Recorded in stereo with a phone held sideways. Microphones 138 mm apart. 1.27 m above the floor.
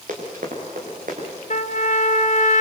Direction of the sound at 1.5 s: 65° left (ahead or behind).